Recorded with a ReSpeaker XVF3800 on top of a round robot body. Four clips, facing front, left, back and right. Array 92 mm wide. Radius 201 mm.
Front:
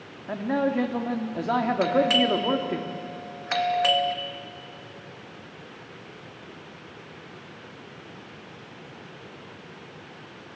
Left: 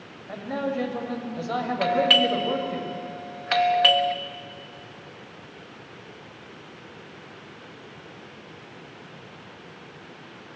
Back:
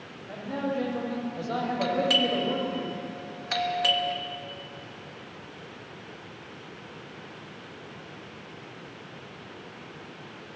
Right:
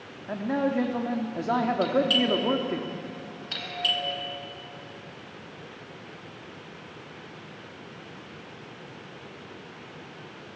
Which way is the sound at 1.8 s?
65° left.